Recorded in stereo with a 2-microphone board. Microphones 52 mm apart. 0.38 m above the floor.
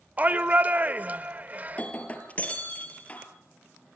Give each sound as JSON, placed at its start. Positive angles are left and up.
{"t": 0.2, "sound": "a shout", "side_deg": -30, "distance_m": 1.0}
{"t": 1.7, "sound": "breaking glass", "side_deg": 25, "distance_m": 3.0}